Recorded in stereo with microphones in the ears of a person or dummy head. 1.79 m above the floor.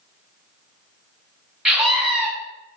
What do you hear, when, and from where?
1.6 s a scream: 5° right (ahead or behind), 1.3 m